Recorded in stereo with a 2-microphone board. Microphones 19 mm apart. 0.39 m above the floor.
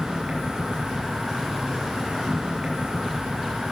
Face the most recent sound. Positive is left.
turn(degrees=-85)